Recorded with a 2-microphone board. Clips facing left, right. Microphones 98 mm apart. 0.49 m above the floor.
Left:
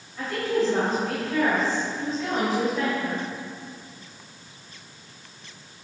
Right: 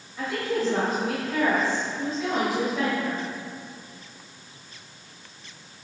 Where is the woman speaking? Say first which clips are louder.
Left 2 dB; 5° right (ahead or behind), 3 m.